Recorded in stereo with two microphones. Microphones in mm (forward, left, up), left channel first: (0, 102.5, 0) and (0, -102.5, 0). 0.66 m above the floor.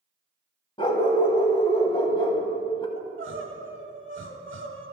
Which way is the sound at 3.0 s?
65° right (ahead or behind).